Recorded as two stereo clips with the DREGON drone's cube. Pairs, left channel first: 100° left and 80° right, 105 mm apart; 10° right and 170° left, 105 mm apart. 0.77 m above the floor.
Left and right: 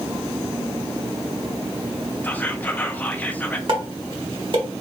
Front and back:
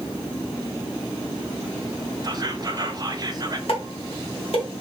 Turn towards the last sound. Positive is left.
turn(degrees=-35)